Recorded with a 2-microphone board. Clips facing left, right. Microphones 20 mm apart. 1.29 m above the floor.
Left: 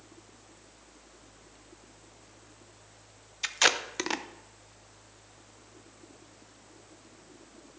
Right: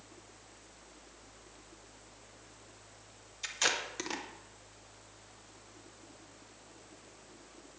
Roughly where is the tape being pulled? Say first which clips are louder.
Left 7 dB; left.